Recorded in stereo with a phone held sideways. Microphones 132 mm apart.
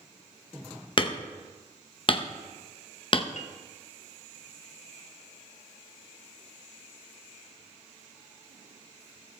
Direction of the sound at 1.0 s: 40° left (ahead or behind).